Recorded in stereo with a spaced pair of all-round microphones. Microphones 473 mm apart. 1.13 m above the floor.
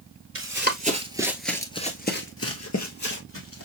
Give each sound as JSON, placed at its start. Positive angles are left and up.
{"t": 0.3, "sound": "running footsteps", "side_deg": -25, "distance_m": 1.4}